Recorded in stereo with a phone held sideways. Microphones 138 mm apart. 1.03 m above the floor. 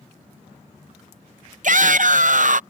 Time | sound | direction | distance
1.6 | a shout | 65° right (ahead or behind) | ?